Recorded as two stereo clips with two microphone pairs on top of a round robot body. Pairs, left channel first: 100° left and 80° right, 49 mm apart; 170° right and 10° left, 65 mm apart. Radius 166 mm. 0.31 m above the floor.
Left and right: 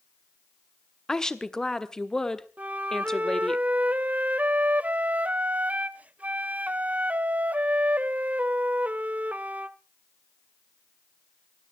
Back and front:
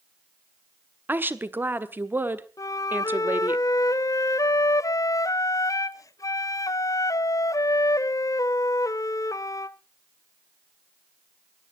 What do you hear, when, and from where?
1.1 s a woman speaking: 30° left, 1.6 m
2.6 s a flute: 135° right, 0.5 m